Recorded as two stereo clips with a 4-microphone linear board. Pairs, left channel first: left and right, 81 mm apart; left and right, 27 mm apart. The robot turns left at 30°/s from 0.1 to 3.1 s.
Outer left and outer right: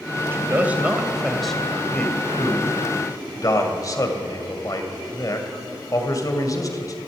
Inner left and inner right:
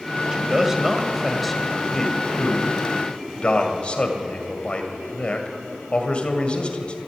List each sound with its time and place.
0.3 s a man speaking: 150° right, 2 m; by 7.0 s 130° left, 2 m